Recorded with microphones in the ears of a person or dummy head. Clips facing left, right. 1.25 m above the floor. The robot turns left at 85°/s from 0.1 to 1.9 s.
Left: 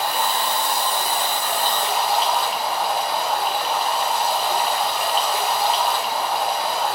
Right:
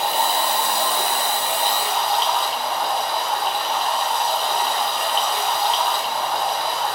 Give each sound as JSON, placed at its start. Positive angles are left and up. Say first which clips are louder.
{"t": 0.0, "sound": "running water", "louder": "right 2 dB", "azimuth_deg": -30, "distance_m": 1.0}